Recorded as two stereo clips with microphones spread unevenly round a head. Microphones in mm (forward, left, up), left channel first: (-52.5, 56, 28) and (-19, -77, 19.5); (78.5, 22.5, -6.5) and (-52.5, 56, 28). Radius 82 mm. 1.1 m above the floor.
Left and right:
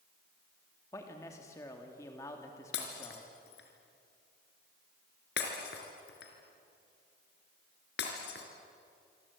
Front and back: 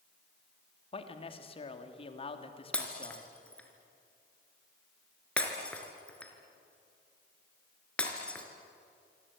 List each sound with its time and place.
0.9 s a man speaking: 30° left, 2.5 m
2.7 s breaking glass: 70° left, 3.5 m